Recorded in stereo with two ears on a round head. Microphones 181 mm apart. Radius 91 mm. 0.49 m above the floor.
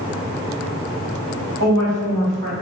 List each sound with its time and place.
1.6 s a woman speaking: 60° right (ahead or behind), 1.8 m